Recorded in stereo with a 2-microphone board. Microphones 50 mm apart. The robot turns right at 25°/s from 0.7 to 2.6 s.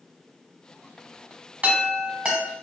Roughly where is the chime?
Right.